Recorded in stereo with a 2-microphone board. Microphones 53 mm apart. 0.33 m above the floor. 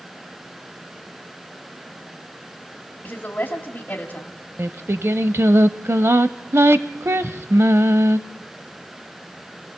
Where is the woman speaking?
30° left (ahead or behind), 2 m.